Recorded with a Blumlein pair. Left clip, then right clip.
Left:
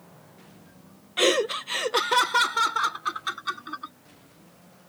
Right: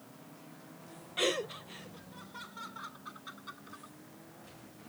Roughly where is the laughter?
Ahead.